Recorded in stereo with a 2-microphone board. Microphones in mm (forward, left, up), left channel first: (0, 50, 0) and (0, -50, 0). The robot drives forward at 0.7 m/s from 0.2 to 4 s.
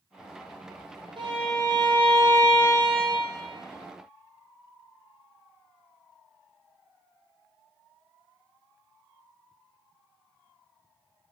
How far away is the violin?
About 3 m.